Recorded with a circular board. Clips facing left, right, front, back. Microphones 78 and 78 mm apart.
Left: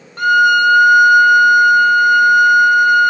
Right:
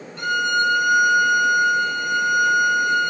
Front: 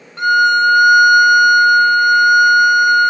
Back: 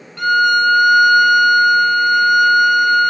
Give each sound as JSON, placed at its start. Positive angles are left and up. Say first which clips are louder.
{"t": 0.2, "sound": "a violin", "louder": "left 10 dB, front 2 dB", "azimuth_deg": 60, "distance_m": 0.8}